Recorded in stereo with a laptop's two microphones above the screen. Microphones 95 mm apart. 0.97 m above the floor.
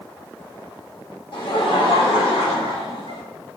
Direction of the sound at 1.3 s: 60° left (ahead or behind).